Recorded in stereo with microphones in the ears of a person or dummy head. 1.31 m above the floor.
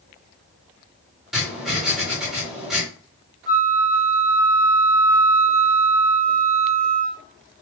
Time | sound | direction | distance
1.3 | writing | 5° right (ahead or behind) | 5 m
3.5 | a flute | 20° left (ahead or behind) | 1.8 m